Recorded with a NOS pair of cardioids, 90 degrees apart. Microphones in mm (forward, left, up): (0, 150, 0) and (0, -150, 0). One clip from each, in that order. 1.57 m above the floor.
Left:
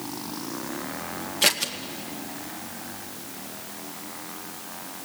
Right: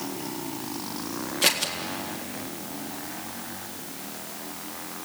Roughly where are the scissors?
Ahead.